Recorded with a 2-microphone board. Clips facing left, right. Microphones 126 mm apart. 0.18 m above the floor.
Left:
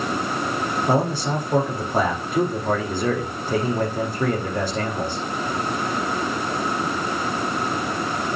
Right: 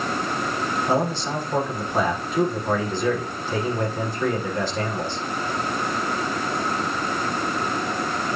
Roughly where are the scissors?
I don't hear scissors.